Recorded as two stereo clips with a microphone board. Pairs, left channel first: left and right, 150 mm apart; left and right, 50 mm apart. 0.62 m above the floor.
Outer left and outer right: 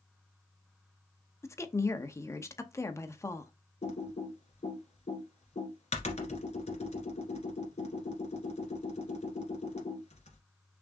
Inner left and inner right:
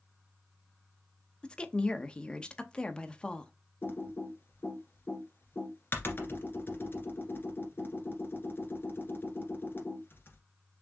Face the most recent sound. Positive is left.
turn(degrees=45)  # may be behind; listen again after turning